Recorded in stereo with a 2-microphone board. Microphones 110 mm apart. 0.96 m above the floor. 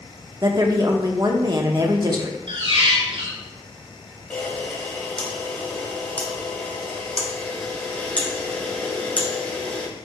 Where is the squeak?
60° right (ahead or behind), 1.7 m.